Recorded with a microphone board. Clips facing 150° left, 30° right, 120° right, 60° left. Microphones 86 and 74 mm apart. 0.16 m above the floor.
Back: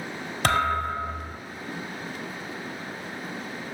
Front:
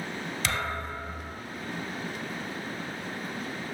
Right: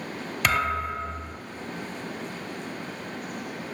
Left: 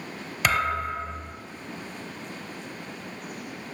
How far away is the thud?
About 1.0 m.